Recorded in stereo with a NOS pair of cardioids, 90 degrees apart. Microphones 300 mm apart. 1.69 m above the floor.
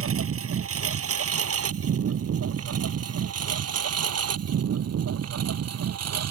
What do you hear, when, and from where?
0.0 s a lawn mower: 45° right; by 6.3 s 55° right